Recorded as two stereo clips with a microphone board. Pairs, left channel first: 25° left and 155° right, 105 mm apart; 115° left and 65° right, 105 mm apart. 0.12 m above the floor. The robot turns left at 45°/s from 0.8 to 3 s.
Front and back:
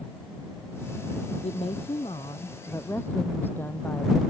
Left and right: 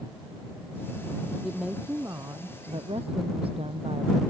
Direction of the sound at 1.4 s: 25° left.